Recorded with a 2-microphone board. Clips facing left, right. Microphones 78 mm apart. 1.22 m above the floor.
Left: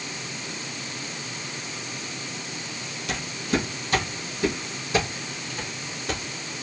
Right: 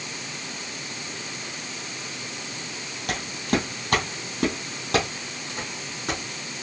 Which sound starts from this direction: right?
Footsteps, at 3.1 s.